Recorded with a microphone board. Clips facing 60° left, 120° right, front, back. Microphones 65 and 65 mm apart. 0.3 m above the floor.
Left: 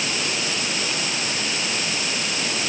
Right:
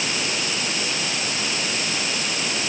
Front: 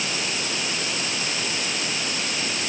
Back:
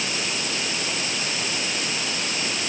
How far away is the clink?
No clink in this recording.